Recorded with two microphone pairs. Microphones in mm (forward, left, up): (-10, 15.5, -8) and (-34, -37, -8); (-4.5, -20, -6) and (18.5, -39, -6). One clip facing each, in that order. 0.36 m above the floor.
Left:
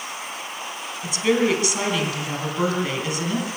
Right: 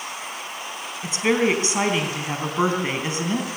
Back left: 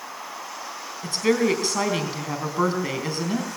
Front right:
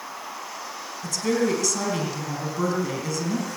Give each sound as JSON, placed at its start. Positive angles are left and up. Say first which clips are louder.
{"t": 1.0, "sound": "a woman speaking", "louder": "even, back left 3 dB", "azimuth_deg": -175, "distance_m": 3.5}